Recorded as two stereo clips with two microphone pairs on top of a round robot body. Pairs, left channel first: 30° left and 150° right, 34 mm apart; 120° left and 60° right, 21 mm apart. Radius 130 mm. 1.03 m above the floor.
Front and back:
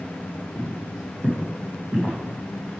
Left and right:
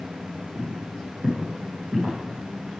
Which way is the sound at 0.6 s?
120° right.